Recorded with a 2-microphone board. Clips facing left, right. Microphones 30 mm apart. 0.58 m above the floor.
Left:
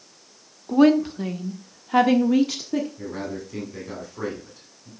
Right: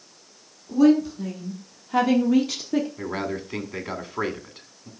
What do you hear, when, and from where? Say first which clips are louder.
0.7 s a woman speaking: left 1 dB; 55° left (ahead or behind), 1.2 m; by 2.9 s 10° right (ahead or behind), 1.0 m
3.0 s a man speaking: right 3 dB; 50° right (ahead or behind), 2 m